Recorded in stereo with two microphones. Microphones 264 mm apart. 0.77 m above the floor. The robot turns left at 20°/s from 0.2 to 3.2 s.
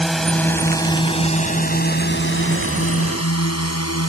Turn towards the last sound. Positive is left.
turn(degrees=60)  # may be behind; listen again after turning